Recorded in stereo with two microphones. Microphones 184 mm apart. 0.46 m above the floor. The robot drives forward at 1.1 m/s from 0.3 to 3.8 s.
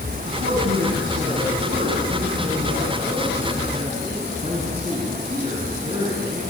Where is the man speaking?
55° right (ahead or behind), 4.5 m; by 6.4 s 30° right (ahead or behind), 7 m.